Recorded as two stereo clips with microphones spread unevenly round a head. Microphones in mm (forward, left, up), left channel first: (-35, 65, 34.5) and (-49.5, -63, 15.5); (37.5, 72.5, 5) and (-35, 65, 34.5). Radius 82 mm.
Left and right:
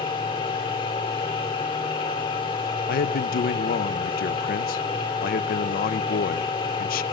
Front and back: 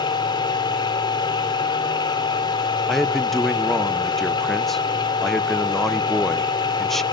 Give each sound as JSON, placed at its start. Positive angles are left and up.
{"t": 0.0, "sound": "a machine running", "azimuth_deg": 20, "distance_m": 3.0}
{"t": 2.9, "sound": "a man speaking", "azimuth_deg": 85, "distance_m": 0.6}